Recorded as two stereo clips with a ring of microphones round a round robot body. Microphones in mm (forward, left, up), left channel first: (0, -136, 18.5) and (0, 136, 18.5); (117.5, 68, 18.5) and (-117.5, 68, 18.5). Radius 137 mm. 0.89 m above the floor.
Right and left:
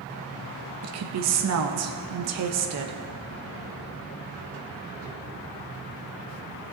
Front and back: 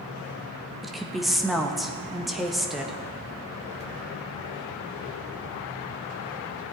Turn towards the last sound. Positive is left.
turn(degrees=90)